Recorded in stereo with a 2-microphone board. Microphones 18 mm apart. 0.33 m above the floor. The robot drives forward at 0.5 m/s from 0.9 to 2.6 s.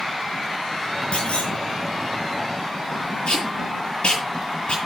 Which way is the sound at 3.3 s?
60° left (ahead or behind).